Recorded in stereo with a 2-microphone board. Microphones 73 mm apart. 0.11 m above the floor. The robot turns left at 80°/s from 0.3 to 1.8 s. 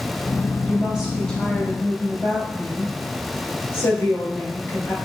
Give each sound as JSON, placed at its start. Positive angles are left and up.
{"t": 0.6, "sound": "a woman speaking", "azimuth_deg": -140, "distance_m": 1.7}